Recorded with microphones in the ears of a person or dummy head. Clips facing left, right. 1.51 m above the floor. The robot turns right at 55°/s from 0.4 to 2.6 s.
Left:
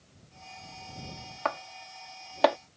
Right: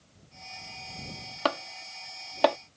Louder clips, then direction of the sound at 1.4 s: Right 4 dB; 40° right (ahead or behind).